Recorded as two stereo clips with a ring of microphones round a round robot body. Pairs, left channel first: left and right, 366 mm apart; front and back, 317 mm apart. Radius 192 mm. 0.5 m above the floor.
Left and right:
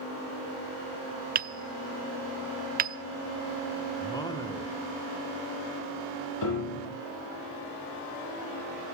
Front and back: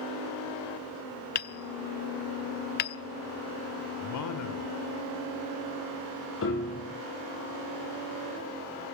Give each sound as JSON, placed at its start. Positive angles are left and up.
{"t": 1.4, "sound": "hammering", "azimuth_deg": -35, "distance_m": 0.8}
{"t": 4.0, "sound": "a man speaking", "azimuth_deg": 10, "distance_m": 2.0}
{"t": 6.4, "sound": "a piano", "azimuth_deg": 50, "distance_m": 8.0}